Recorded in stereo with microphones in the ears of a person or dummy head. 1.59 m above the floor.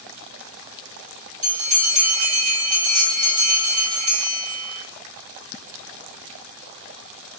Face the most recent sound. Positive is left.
turn(degrees=-75)  # may be behind; listen again after turning